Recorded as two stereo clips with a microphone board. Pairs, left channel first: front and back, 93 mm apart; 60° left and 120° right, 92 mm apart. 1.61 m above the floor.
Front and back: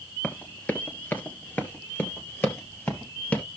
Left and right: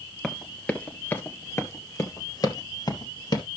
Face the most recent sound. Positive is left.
turn(degrees=65)